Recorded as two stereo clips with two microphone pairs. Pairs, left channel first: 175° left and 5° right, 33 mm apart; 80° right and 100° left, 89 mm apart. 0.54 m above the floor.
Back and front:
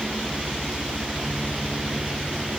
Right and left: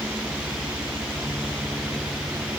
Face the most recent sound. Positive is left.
No sound to turn to.